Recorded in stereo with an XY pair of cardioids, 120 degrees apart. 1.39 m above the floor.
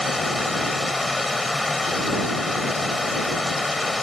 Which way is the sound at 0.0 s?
15° left.